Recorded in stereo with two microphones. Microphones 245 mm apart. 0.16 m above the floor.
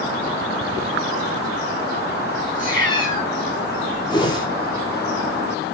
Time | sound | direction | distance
2.5 | a cat meowing | 35° right (ahead or behind) | 1.1 m
4.1 | a whoosh | 20° left (ahead or behind) | 0.6 m